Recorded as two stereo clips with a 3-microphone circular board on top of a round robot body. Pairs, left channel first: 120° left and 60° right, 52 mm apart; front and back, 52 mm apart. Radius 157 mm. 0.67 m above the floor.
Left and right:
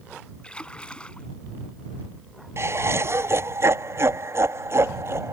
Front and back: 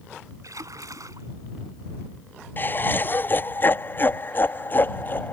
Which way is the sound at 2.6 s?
40° right.